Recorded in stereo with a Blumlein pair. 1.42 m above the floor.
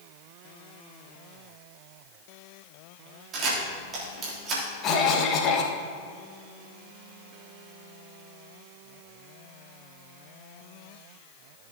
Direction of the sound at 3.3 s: 25° right.